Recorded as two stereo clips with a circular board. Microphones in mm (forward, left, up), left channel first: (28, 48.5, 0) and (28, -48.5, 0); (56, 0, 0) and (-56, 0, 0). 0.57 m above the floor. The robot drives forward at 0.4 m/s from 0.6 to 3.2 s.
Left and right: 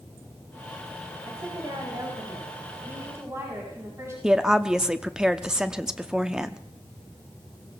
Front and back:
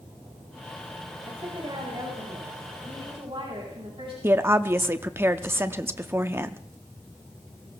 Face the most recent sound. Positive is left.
turn(degrees=-160)